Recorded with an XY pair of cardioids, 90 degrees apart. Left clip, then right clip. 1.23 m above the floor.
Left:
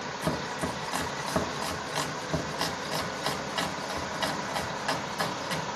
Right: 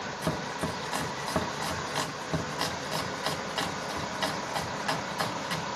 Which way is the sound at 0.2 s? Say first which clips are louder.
Left 1 dB; straight ahead.